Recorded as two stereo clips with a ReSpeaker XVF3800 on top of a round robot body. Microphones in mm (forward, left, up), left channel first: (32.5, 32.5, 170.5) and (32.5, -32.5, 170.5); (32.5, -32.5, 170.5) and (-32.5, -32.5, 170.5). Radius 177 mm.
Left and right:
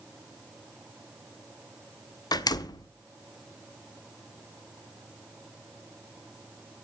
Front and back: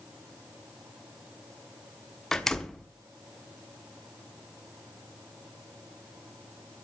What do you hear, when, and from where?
2.3 s a door slam: 85° left, 1.1 m